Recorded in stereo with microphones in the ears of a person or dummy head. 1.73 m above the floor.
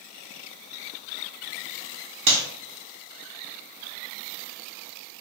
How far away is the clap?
About 0.8 m.